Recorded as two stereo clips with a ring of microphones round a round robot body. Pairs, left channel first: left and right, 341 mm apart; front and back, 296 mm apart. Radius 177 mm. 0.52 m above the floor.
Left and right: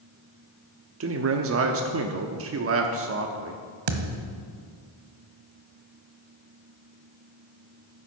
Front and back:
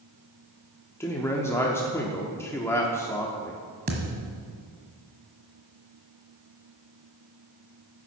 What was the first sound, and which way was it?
A man speaking, 75° right.